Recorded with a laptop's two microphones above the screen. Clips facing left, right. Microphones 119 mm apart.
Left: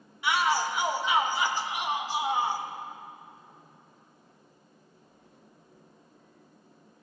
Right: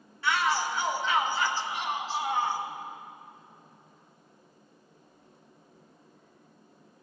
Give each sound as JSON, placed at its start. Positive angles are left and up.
{"t": 0.2, "sound": "a shout", "side_deg": 15, "distance_m": 0.9}